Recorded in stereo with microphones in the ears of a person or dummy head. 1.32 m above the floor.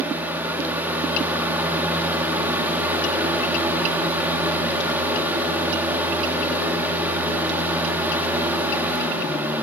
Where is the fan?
20° right (ahead or behind), 2 m.